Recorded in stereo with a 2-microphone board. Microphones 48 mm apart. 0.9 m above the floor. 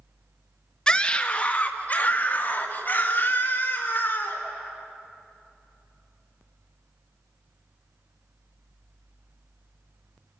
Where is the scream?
15° left (ahead or behind), 1.2 m; by 4.4 s 50° left (ahead or behind), 4 m.